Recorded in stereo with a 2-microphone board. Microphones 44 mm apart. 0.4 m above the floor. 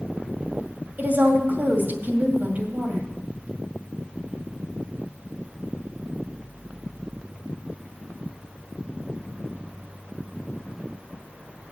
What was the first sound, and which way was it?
A woman speaking, 50° right (ahead or behind).